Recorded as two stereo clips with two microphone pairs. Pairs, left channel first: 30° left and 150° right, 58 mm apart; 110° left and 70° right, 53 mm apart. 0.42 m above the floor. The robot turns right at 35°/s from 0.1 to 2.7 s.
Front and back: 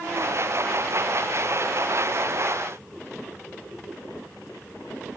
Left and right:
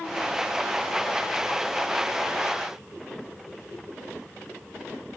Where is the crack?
I don't hear a crack.